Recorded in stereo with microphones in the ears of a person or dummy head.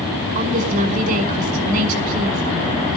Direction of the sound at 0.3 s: 45° right (ahead or behind).